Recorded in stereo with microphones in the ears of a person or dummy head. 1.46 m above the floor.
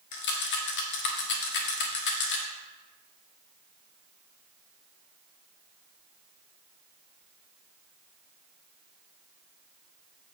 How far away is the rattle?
About 1.4 m.